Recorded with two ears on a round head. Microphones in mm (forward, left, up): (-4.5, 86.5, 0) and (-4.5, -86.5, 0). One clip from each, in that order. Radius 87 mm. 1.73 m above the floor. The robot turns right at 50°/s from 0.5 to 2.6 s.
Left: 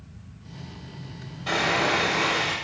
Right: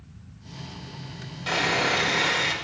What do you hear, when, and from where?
1.5 s sawing: 110° right, 5.5 m; by 2.5 s 55° right, 5.5 m